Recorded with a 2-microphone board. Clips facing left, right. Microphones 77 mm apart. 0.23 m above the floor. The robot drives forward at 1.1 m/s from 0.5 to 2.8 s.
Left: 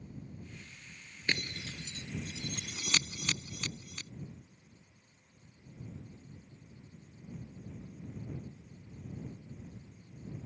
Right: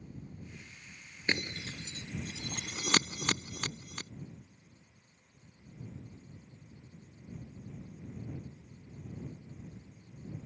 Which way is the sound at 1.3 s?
20° right (ahead or behind).